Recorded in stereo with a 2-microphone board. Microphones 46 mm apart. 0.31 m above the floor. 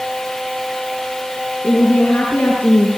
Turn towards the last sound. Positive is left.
turn(degrees=45)  # may be behind; listen again after turning